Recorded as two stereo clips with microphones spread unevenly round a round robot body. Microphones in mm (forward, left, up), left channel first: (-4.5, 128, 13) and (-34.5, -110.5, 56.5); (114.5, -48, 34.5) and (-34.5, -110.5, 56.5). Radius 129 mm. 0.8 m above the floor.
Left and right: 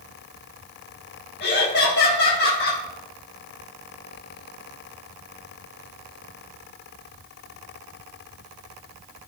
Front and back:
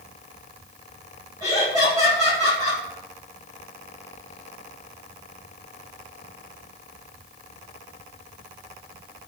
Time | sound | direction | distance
1.4 | laughter | 130° left | 1.8 m